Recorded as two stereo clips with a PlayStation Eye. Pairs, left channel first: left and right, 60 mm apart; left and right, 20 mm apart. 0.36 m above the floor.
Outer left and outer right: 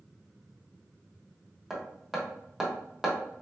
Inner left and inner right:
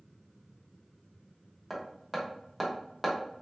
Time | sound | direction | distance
1.7 | hammering | 5° right (ahead or behind) | 1.1 m